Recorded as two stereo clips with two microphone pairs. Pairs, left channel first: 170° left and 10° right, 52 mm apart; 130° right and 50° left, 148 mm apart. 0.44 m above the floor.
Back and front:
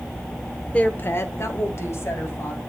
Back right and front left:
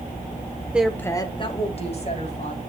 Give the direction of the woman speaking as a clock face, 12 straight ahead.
8 o'clock.